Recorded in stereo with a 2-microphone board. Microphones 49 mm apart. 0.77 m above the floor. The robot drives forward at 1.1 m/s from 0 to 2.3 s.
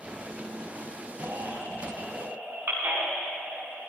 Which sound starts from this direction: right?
A baby crying, at 1.2 s.